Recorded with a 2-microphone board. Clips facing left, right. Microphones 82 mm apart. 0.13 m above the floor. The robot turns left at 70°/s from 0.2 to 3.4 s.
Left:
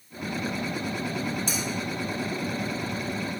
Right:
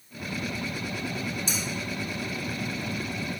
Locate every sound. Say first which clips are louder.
1.5 s cutlery clinking: left 2 dB; 50° left (ahead or behind), 2 m; by 1.6 s 40° left (ahead or behind), 2 m